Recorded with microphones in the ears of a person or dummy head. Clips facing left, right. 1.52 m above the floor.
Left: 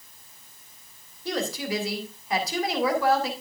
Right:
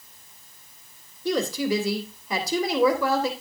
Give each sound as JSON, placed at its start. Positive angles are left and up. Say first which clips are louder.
{"t": 1.2, "sound": "a woman speaking", "louder": "right 5 dB", "side_deg": -90, "distance_m": 3.0}